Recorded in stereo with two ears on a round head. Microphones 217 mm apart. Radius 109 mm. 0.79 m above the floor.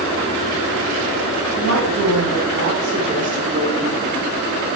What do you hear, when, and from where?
1.6 s a woman speaking: 60° right (ahead or behind), 4 m; by 4.0 s centre (ahead or behind), 1.3 m